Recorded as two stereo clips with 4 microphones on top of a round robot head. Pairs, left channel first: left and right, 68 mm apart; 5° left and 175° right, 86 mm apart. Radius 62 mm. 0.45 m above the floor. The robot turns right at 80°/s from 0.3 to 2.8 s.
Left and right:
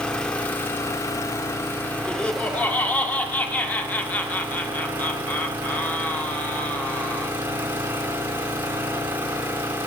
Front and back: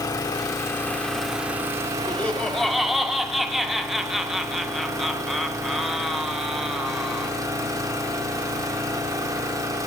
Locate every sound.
0.0 s an engine running: 20° left, 0.8 m; by 9.9 s 140° right, 0.8 m
2.1 s laughter: 40° left, 0.7 m; by 7.3 s 100° left, 0.7 m